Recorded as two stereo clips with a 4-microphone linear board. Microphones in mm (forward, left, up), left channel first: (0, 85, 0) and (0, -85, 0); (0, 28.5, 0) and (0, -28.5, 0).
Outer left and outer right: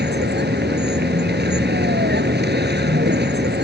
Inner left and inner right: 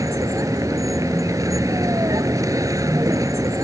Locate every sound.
0.0 s a vehicle: 80° right